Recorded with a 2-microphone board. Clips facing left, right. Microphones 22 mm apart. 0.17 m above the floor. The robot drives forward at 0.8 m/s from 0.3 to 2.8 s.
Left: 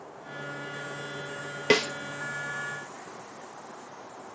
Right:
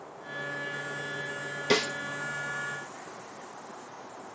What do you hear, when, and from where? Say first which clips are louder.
1.7 s a snare drum: left 3 dB; 55° left (ahead or behind), 1.2 m; by 1.9 s 50° left (ahead or behind), 1.3 m